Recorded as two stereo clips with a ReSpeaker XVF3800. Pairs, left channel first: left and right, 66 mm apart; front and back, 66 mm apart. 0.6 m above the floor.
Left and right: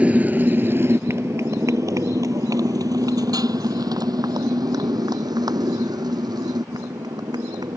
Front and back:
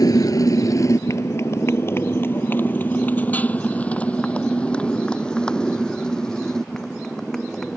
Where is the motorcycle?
20° right; by 7.8 s 85° right.